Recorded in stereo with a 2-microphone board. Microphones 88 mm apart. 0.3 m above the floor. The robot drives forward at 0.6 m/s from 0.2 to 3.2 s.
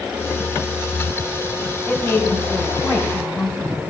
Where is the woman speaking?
25° left (ahead or behind), 2.5 m; by 3.9 s 20° left (ahead or behind), 3.5 m.